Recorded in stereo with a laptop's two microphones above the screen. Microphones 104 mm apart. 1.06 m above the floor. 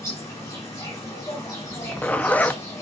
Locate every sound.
0.0 s an insect: 35° left (ahead or behind), 5 m
1.7 s a zipper: 15° left (ahead or behind), 0.6 m